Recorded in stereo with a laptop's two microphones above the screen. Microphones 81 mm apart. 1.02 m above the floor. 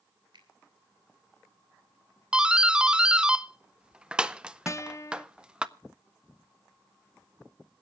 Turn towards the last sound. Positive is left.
turn(degrees=35)  # may be behind; listen again after turning